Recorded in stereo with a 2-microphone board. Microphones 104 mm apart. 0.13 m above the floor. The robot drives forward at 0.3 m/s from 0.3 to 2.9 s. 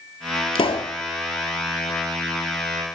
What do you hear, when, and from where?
0.6 s a pop: 70° left (ahead or behind), 0.6 m